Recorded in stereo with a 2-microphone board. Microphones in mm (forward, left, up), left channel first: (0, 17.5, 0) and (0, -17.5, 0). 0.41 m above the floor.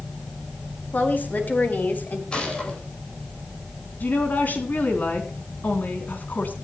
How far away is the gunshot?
About 10 m.